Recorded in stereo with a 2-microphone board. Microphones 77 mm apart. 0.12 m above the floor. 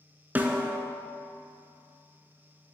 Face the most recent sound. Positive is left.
turn(degrees=-25)  # may be behind; listen again after turning